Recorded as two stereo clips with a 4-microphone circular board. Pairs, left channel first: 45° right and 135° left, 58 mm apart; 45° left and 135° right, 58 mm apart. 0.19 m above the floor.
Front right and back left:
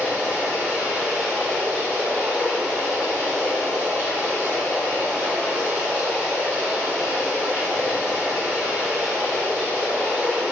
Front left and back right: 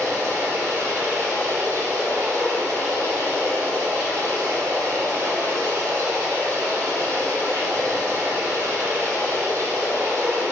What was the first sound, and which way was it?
Running water, 165° right.